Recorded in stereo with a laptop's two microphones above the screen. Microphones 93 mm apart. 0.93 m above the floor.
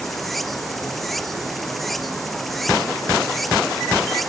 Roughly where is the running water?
Centre.